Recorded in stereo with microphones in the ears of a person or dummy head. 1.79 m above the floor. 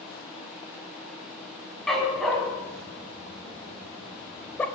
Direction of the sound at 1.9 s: 5° right (ahead or behind).